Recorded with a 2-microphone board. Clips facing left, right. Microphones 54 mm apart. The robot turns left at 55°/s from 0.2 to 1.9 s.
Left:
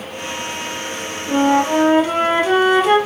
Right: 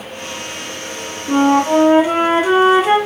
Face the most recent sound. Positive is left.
turn(degrees=-160)